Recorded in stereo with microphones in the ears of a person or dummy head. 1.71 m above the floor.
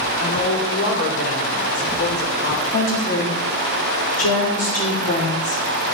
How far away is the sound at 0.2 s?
About 4.5 m.